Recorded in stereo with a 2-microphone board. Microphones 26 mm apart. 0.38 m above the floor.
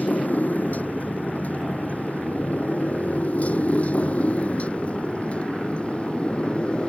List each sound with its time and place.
0.0 s a motorcycle: 80° left; by 6.9 s 45° left (ahead or behind)